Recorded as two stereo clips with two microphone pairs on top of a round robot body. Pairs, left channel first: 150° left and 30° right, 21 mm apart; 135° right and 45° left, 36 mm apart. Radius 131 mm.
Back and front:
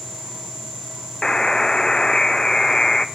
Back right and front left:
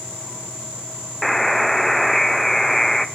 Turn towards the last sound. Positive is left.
turn(degrees=135)